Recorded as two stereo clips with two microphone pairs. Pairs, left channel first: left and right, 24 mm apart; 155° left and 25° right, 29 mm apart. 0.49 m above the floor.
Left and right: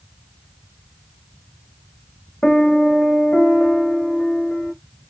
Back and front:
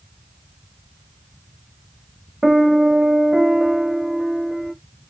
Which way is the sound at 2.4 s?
60° left.